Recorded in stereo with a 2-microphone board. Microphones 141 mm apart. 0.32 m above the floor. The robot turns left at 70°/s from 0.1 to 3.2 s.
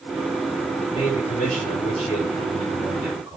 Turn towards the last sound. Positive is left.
turn(degrees=-15)